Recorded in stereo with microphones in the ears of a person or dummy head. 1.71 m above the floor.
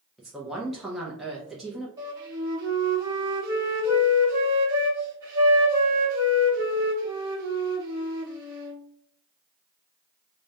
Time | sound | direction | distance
0.2 | a woman speaking | centre (ahead or behind) | 0.5 m
2.0 | a flute | 25° right (ahead or behind) | 1.1 m